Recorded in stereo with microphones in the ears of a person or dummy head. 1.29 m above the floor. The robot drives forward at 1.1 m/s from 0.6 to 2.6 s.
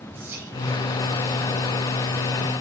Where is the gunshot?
I don't hear a gunshot.